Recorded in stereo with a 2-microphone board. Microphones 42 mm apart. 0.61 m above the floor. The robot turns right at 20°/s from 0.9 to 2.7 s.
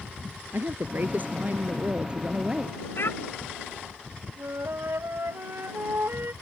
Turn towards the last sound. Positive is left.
turn(degrees=-70)  # may be behind; listen again after turning